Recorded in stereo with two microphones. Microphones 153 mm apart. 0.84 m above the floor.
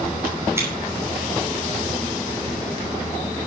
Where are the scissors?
15° right (ahead or behind), 5.5 m.